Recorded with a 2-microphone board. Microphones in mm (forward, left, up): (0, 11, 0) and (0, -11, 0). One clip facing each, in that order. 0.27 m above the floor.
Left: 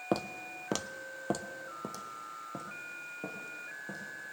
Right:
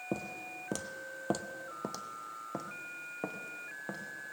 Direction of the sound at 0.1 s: 70° left (ahead or behind).